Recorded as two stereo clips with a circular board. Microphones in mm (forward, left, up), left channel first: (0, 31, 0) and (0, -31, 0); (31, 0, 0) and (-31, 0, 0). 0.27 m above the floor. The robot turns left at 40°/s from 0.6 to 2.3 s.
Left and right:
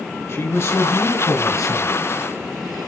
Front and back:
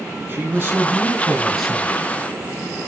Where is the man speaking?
125° left, 3 m; by 2.0 s 65° left, 3 m.